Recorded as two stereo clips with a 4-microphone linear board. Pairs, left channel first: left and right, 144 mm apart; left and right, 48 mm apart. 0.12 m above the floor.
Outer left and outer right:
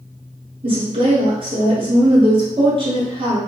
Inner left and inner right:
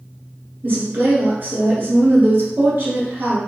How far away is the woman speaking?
About 1.4 m.